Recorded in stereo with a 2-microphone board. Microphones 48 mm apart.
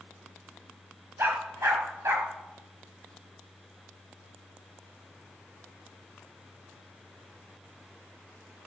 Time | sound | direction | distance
1.2 | a dog barking | 45° right (ahead or behind) | 2 m